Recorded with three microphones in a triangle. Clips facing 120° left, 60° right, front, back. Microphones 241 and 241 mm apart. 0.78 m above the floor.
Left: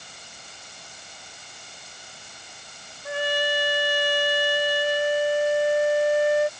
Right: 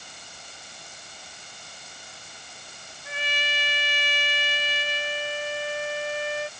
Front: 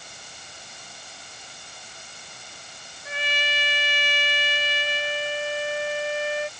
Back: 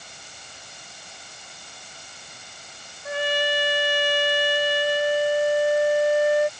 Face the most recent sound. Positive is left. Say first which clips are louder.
# left 11 dB, back 9 dB
turn(degrees=150)